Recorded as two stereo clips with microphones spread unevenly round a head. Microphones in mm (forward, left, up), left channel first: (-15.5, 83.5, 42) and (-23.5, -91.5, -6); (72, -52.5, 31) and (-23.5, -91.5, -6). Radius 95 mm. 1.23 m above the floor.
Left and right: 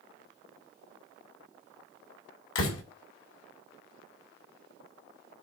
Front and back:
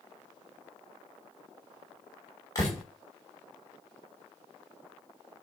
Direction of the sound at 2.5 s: 95° left.